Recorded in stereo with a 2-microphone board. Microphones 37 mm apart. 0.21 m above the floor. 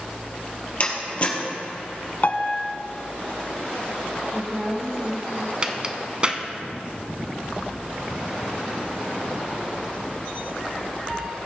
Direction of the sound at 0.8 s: 35° left (ahead or behind).